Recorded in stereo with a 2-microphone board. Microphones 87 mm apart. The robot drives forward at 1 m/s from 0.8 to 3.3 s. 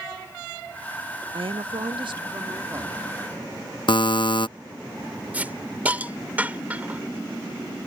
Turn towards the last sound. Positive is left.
turn(degrees=-20)  # may be behind; listen again after turning